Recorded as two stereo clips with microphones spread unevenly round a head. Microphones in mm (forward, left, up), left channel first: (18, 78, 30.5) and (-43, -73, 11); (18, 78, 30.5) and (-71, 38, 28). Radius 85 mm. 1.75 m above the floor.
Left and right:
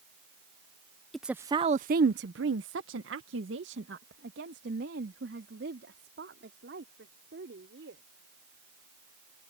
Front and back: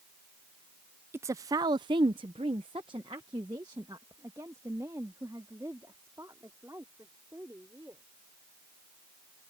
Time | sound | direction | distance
1.1 | a woman speaking | 145° left | ?